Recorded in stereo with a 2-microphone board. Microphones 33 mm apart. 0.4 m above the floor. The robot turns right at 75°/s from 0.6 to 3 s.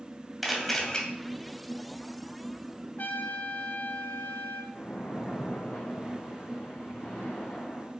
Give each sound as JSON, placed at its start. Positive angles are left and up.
{"t": 0.4, "sound": "a camera shutter", "azimuth_deg": 0, "distance_m": 2.5}
{"t": 3.0, "sound": "a trumpet", "side_deg": 65, "distance_m": 2.0}
{"t": 4.7, "sound": "a splash", "side_deg": 45, "distance_m": 3.5}